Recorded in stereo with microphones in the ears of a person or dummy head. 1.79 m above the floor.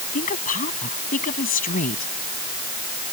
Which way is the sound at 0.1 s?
45° left (ahead or behind).